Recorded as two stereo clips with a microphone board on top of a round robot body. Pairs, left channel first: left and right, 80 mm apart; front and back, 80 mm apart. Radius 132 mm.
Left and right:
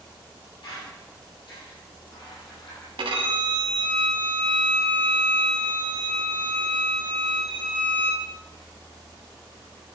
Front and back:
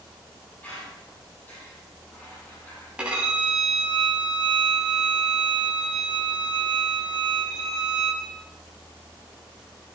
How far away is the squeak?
About 5.5 m.